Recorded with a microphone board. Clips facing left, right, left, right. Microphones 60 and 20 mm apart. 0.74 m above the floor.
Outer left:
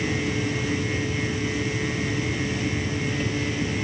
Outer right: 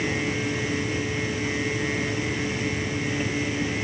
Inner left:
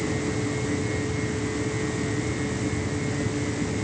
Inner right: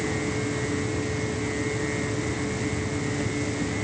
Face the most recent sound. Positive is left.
No sound to turn to.